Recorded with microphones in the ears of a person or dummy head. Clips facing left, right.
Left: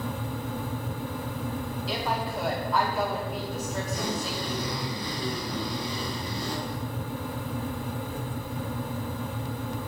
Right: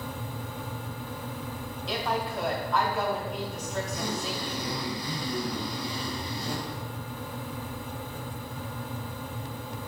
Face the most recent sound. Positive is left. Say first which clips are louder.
# right 1 dB
turn(degrees=60)  # may be behind; listen again after turning